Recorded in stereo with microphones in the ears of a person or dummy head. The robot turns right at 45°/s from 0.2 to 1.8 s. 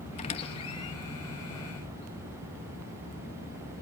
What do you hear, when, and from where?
0.2 s a squeak: 30° left (ahead or behind), 1.2 m; by 0.9 s 20° left (ahead or behind), 1.2 m